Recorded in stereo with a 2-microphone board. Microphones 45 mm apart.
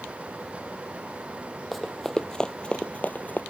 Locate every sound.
1.7 s running footsteps: 5° left (ahead or behind); by 3.4 s 45° left (ahead or behind)